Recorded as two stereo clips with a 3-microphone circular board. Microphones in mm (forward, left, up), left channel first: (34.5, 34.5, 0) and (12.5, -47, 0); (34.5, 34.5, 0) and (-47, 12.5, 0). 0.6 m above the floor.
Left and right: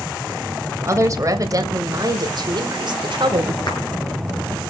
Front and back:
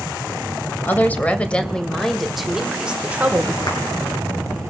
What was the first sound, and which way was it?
A woman speaking, 50° right.